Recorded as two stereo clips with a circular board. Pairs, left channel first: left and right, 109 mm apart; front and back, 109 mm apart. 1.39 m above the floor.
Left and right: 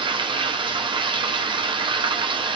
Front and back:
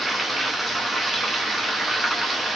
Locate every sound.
0.0 s running water: 90° right, 0.9 m